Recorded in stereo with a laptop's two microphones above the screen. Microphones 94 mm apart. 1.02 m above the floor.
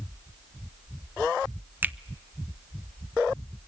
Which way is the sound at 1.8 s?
20° right (ahead or behind).